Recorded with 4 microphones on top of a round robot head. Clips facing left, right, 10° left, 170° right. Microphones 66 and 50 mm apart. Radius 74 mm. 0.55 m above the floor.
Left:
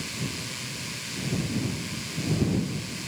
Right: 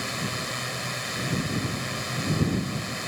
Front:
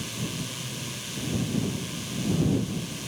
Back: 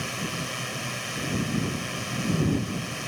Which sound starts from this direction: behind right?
A drone, at 0.0 s.